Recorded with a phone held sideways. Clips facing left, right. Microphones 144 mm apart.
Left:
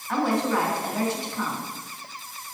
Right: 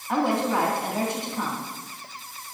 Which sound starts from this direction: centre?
A woman speaking, at 0.1 s.